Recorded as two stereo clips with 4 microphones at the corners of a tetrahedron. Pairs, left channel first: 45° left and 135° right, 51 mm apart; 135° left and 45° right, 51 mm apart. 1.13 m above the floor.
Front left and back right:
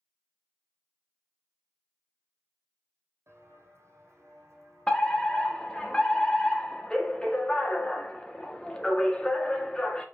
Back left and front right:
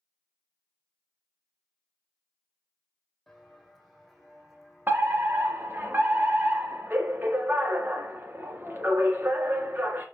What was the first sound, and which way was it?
Footsteps, 135° right.